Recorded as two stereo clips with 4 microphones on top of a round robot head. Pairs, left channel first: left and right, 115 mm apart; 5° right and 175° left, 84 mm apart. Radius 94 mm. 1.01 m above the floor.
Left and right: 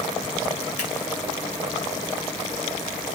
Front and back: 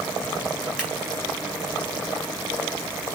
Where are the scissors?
95° left, 4 m.